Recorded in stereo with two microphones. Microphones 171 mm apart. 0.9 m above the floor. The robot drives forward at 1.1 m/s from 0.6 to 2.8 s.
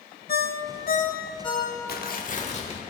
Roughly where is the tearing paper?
Left.